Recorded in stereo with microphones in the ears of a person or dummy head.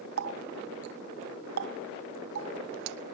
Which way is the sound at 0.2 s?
60° right (ahead or behind).